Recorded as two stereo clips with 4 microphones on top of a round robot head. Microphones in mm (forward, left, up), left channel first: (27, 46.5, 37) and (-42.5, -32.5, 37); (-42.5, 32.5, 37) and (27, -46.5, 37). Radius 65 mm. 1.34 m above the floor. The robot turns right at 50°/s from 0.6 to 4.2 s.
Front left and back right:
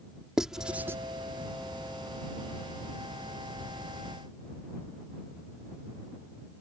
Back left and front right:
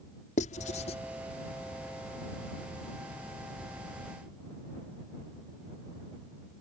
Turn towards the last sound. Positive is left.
turn(degrees=-35)